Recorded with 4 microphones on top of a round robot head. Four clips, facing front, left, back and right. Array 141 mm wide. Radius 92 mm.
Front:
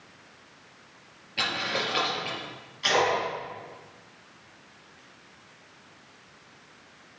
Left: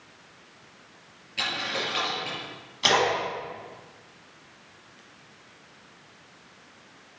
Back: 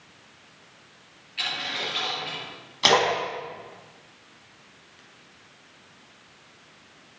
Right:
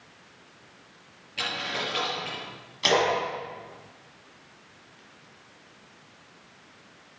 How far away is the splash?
About 5 m.